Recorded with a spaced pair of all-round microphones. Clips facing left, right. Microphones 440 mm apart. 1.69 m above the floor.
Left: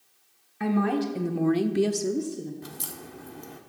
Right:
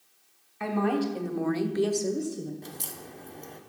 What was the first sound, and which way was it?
A woman speaking, 30° left (ahead or behind).